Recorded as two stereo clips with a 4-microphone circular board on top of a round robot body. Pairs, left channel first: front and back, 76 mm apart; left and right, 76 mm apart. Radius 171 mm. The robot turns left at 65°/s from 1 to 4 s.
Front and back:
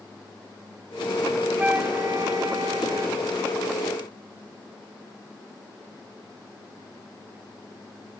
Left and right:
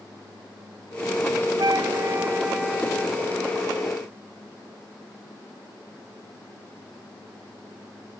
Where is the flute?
105° right; by 3.2 s 150° left.